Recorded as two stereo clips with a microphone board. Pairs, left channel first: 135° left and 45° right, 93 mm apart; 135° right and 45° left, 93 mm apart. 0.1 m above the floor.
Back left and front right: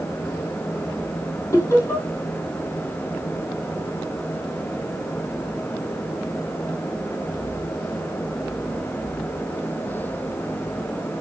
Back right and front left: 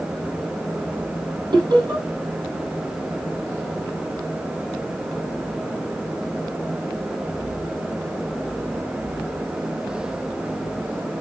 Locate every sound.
1.5 s laughter: 80° left, 3 m